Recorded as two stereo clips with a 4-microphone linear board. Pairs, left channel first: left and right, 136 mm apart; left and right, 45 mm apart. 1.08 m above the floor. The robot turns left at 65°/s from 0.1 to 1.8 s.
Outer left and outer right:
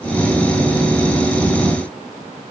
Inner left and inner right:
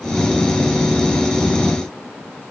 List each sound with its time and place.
Only background noise.